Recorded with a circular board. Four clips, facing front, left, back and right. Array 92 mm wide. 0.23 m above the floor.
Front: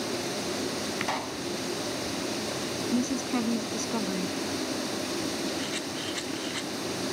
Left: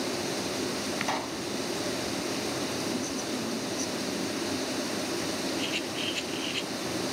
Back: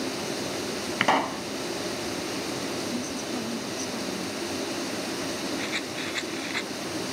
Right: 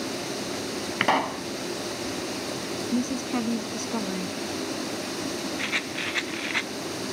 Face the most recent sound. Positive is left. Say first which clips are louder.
# right 1 dB, back 1 dB
turn(degrees=-105)